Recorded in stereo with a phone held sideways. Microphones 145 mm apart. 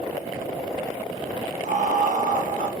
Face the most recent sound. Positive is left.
turn(degrees=-65)  # may be behind; listen again after turning